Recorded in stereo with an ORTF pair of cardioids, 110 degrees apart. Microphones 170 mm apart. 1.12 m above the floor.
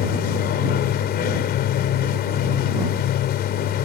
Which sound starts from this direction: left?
A machine running, at 0.0 s.